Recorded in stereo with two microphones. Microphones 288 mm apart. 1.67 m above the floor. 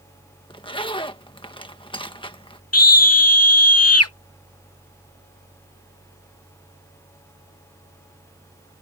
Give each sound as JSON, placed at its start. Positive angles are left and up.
{"t": 0.5, "sound": "a zipper", "side_deg": 15}
{"t": 2.7, "sound": "a scream", "side_deg": 55}